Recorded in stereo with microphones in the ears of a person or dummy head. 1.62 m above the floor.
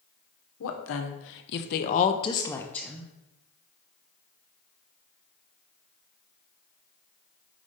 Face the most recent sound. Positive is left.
turn(degrees=-5)  # may be behind; listen again after turning